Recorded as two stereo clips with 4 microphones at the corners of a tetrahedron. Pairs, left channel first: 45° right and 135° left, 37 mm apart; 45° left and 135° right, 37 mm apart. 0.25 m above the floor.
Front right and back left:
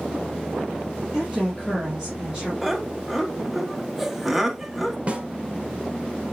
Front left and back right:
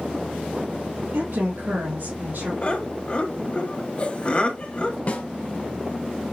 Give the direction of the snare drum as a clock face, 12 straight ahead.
9 o'clock.